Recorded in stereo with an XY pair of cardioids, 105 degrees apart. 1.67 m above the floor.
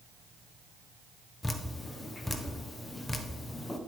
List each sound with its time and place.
1.4 s dripping: 20° left, 1.1 m